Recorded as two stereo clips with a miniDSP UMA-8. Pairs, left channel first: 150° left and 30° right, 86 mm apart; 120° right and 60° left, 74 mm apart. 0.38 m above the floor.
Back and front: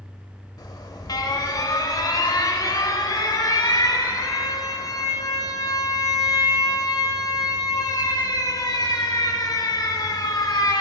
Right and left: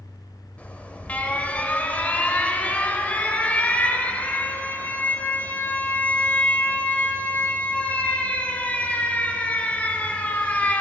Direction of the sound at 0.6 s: 175° left.